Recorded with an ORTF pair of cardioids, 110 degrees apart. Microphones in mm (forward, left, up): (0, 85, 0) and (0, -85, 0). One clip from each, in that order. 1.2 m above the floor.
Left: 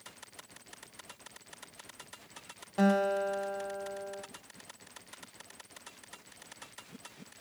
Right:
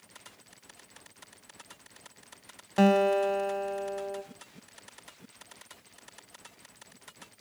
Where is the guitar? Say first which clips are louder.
Right 5 dB; 45° right, 1.1 m.